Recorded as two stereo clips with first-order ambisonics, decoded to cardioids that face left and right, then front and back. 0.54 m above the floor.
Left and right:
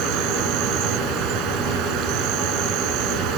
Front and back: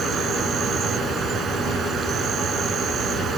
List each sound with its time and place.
0.0 s an insect: 120° right